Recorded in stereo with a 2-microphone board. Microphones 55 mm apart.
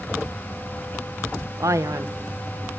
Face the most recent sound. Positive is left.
turn(degrees=-70)  # may be behind; listen again after turning